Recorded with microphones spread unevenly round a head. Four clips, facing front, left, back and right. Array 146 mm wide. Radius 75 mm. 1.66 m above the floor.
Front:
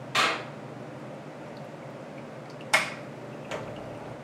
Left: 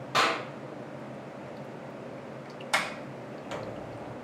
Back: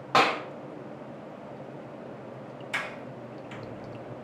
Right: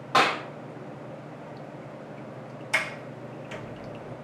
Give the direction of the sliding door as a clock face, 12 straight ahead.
11 o'clock.